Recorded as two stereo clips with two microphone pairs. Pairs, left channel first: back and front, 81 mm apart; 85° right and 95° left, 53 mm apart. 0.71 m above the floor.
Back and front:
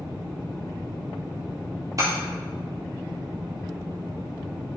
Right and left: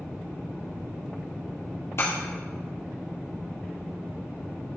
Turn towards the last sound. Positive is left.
turn(degrees=-50)